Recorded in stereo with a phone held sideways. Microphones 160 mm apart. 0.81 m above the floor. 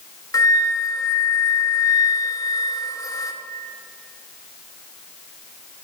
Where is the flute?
20° left (ahead or behind), 0.8 m.